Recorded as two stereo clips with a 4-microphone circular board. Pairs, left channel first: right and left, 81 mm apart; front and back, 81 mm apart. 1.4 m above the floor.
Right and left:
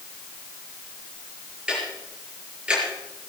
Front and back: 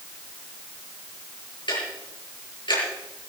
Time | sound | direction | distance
1.7 | ticking | 15° left | 7 m